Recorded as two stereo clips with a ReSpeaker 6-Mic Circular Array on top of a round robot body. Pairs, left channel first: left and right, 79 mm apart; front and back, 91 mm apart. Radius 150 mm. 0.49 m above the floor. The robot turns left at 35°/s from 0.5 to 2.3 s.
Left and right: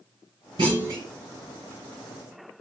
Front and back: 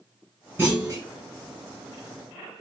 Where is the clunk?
115° right, 2.5 m; by 1.0 s 130° right, 2.5 m.